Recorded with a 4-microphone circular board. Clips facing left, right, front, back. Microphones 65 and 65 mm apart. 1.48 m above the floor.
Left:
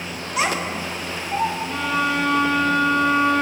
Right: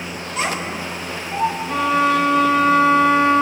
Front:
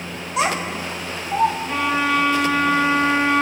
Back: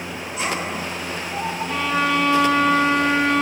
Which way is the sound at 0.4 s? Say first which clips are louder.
Left 1 dB, front 4 dB; 20° left.